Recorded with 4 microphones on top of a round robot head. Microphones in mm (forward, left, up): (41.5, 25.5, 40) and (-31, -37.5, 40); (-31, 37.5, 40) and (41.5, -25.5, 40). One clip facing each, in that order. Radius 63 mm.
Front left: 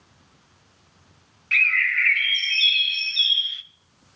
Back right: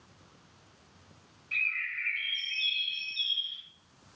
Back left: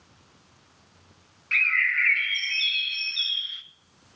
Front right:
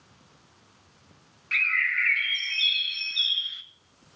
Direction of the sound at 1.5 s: 45° left.